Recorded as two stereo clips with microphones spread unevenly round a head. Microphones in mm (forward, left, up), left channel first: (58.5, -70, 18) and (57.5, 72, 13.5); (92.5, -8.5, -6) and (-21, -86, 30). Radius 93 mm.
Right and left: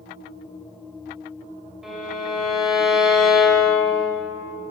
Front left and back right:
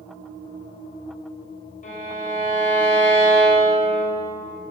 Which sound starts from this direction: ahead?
A violin, at 1.8 s.